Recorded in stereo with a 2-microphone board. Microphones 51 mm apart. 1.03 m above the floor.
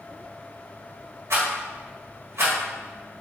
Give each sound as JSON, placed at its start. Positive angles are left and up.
{"t": 1.3, "sound": "a rattle", "side_deg": -65, "distance_m": 1.8}